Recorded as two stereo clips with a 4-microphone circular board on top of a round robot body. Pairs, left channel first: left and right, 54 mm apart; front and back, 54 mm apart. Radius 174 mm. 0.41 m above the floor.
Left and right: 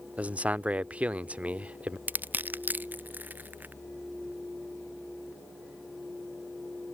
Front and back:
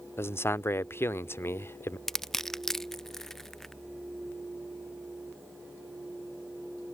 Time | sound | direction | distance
0.2 | a man speaking | 30° right | ?
2.1 | crushing | 80° right | ?